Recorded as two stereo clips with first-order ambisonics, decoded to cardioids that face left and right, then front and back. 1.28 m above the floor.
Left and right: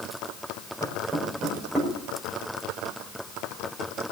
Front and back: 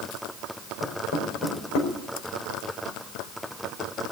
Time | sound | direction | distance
0.8 | knocking | 5° right | 4.5 m